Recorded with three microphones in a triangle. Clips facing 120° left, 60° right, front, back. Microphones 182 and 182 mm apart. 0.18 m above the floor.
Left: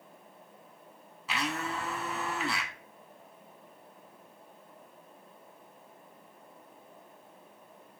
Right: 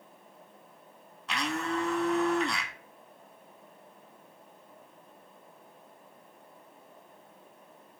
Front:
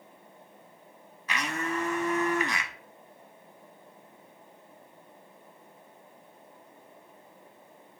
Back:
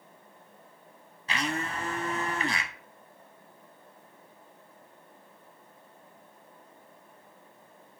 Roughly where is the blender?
Behind right.